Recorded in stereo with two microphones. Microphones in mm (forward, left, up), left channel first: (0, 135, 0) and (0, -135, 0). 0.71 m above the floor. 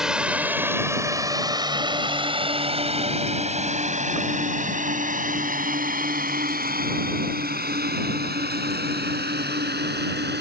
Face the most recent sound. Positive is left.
turn(degrees=-40)  # may be behind; listen again after turning